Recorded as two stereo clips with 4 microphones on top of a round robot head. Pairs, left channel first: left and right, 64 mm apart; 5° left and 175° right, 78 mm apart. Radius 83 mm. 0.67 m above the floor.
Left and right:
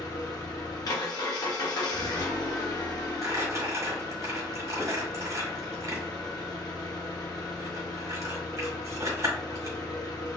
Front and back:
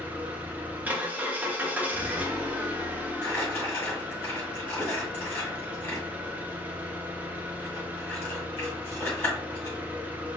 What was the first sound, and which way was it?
An engine running, 115° left.